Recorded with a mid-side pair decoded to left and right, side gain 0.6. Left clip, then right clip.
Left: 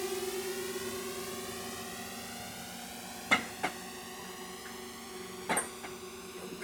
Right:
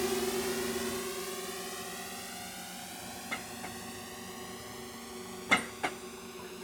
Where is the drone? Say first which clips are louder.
Right 4 dB; 15° right; by 6.6 s 5° left.